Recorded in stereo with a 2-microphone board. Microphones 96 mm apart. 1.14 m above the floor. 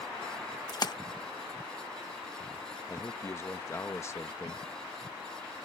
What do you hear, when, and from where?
0.7 s a splash: 45° left (ahead or behind)
2.9 s a man speaking: 30° left (ahead or behind)